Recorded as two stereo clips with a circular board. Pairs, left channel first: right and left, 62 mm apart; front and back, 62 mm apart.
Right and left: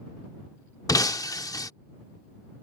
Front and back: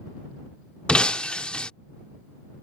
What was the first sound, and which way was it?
Breaking glass, 75° right.